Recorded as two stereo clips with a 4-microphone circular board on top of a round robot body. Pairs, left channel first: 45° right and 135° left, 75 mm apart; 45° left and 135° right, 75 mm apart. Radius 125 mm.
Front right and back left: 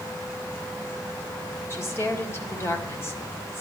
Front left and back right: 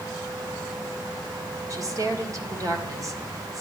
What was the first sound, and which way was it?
A woman speaking, 100° right.